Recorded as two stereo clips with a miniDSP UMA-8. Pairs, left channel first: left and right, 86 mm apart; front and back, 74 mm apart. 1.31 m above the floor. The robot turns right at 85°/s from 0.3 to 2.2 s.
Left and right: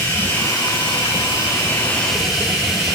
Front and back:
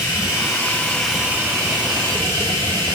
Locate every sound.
0.0 s running water: 20° left, 2.5 m; by 3.0 s straight behind, 2.5 m